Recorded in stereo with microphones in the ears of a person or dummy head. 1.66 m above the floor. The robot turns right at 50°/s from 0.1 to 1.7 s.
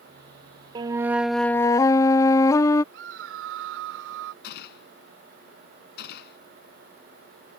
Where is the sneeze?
I don't hear a sneeze.